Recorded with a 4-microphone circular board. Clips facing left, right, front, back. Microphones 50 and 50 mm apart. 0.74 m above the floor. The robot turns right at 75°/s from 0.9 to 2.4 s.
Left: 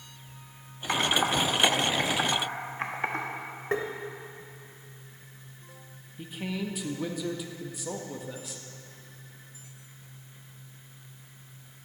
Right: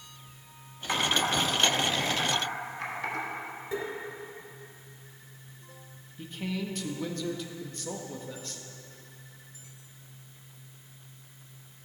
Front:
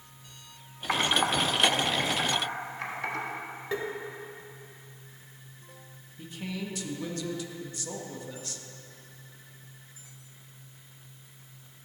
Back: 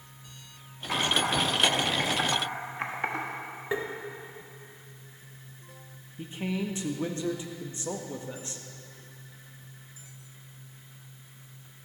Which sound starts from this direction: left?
Tapping, at 3.7 s.